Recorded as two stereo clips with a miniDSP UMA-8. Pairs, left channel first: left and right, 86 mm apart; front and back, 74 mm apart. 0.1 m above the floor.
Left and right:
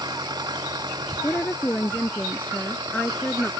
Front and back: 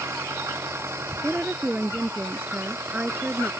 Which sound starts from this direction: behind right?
An engine running, at 0.0 s.